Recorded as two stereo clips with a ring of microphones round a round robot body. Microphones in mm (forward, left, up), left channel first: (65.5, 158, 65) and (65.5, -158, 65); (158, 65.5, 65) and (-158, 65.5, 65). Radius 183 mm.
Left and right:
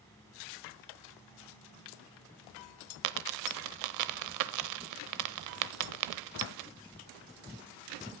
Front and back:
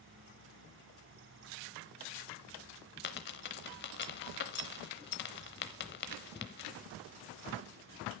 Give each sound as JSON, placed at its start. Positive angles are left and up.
{"t": 3.0, "sound": "a dropped coin", "azimuth_deg": -65, "distance_m": 0.7}